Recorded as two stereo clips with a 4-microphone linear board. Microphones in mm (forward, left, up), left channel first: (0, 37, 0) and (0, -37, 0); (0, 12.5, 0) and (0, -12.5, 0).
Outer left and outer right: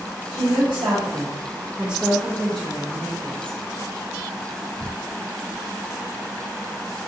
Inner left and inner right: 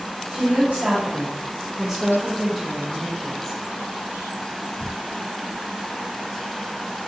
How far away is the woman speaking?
About 0.8 m.